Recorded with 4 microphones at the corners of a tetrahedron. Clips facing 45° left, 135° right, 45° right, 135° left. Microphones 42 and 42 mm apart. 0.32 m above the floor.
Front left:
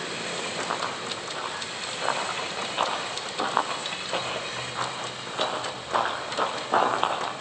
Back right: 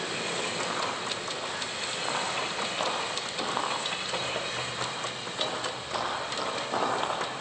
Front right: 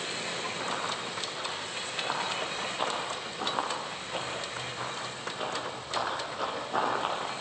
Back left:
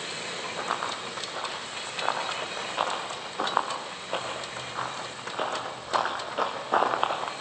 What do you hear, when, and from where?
0.6 s running footsteps: 110° left, 8.5 m; by 7.3 s 100° left, 5.5 m